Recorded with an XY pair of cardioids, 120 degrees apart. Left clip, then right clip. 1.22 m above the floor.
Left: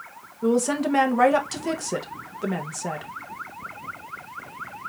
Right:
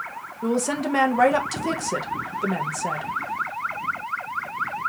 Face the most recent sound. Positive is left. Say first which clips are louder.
# left 2 dB
turn(degrees=0)